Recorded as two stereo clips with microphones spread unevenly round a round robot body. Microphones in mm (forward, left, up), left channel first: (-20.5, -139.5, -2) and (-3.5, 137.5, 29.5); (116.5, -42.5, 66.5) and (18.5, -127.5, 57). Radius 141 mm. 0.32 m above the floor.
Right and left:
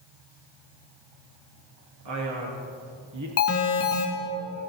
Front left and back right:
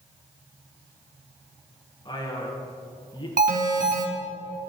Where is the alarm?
130° right, 3.5 m.